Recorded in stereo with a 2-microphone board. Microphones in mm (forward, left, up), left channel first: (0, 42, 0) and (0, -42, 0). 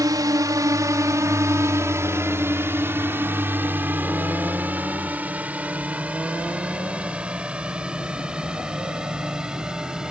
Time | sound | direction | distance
0.0 | a drone | 50° right (ahead or behind) | ?